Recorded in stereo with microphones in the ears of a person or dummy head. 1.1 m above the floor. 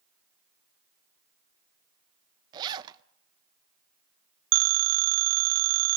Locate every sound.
2.5 s a zipper: 30° right (ahead or behind), 0.5 m
4.5 s a phone ringing: 65° right (ahead or behind), 0.6 m